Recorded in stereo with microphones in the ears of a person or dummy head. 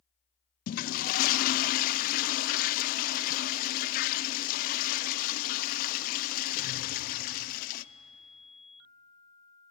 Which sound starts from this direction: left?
A toilet flushing, at 0.7 s.